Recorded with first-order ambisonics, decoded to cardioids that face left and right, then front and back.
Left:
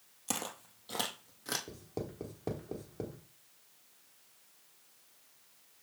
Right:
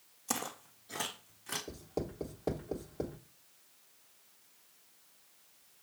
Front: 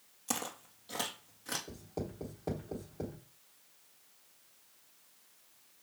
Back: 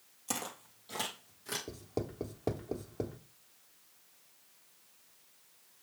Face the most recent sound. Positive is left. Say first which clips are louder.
# right 3 dB, back 3 dB
turn(degrees=-175)